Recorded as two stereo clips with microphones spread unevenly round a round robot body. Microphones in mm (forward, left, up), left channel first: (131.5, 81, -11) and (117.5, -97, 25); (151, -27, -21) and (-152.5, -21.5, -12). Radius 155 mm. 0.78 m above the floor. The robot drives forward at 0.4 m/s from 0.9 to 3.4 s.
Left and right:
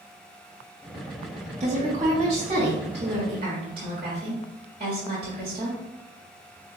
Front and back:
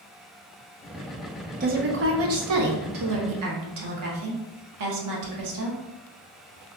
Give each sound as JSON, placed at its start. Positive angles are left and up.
{"t": 1.6, "sound": "a woman speaking", "azimuth_deg": -140, "distance_m": 0.7}